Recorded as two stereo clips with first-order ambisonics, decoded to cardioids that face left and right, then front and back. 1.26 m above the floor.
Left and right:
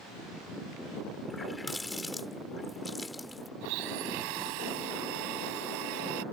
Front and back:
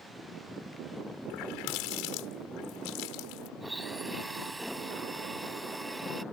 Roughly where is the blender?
Right.